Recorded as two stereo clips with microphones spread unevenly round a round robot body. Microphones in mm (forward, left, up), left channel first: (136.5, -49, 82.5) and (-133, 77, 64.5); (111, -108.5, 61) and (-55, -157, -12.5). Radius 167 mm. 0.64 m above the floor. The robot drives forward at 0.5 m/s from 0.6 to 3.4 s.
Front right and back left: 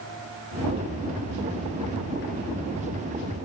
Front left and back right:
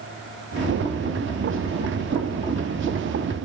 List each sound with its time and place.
Only background noise.